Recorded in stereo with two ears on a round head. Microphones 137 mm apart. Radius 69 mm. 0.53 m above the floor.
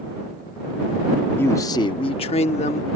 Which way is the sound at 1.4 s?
15° left (ahead or behind).